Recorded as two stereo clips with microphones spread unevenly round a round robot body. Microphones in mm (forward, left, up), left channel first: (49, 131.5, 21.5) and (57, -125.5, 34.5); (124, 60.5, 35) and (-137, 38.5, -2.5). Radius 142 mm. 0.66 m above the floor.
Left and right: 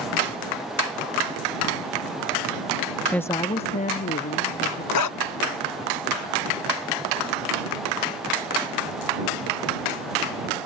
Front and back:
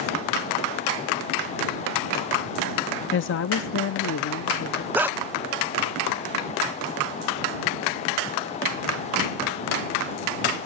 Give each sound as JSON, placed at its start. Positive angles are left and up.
{"t": 3.1, "sound": "a woman speaking", "azimuth_deg": 10}
{"t": 4.9, "sound": "a dog barking", "azimuth_deg": 100}